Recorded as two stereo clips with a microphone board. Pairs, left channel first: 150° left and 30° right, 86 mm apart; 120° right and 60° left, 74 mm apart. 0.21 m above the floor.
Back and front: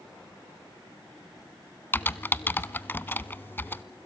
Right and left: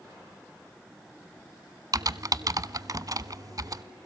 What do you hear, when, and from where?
1.9 s typing on a keyboard: 85° left, 0.7 m